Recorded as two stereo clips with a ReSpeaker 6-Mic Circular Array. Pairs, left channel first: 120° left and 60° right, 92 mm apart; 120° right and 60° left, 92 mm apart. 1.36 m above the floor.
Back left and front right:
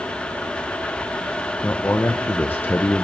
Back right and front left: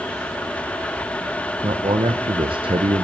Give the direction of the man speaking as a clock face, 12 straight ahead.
10 o'clock.